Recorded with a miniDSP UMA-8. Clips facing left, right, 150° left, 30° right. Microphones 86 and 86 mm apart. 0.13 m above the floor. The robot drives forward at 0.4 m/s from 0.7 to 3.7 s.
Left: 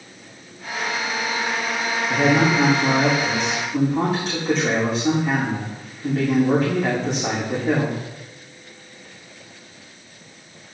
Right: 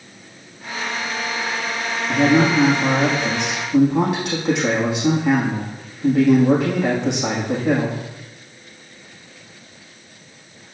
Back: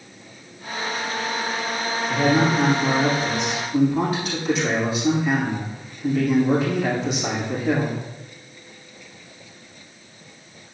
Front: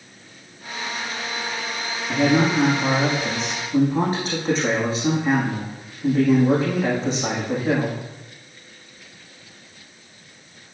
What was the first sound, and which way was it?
A man speaking, 75° right.